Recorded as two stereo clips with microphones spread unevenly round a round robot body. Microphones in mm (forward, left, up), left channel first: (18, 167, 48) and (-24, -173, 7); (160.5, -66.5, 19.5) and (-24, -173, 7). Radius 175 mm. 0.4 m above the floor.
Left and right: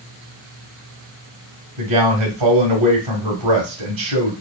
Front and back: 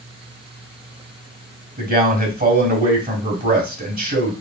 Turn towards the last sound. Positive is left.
turn(degrees=-110)